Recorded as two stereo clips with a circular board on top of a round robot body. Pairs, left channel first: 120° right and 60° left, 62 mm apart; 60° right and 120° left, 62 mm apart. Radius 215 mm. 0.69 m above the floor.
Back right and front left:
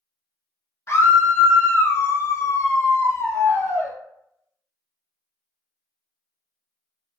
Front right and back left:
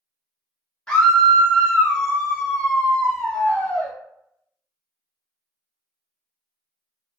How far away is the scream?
About 1.2 m.